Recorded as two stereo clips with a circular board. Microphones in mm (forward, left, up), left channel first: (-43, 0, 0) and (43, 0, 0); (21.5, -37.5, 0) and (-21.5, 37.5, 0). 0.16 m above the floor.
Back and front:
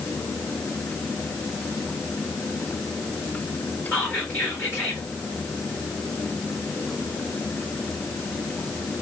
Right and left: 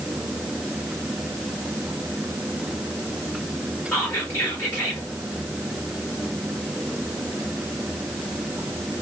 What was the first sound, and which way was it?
Whispering, 125° right.